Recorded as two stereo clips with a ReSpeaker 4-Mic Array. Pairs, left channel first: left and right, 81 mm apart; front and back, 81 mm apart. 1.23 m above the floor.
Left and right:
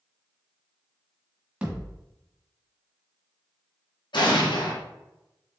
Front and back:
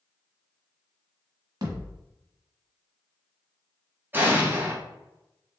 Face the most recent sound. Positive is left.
turn(degrees=115)